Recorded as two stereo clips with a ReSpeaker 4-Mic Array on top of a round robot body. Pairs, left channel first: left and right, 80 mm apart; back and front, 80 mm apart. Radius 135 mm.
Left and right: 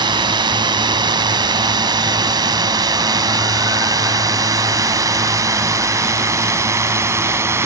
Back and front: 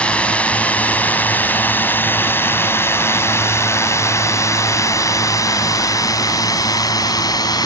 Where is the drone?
105° right; by 7.7 s 145° right.